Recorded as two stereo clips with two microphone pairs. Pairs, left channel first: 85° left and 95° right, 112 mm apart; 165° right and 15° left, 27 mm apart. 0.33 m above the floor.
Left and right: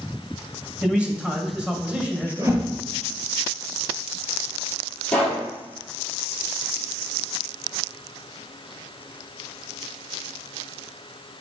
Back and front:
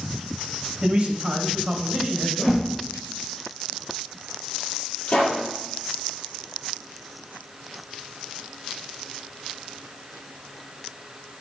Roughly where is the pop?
Behind.